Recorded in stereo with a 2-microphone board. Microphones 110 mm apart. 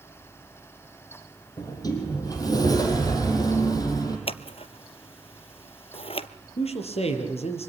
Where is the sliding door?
35° left (ahead or behind), 4.5 m.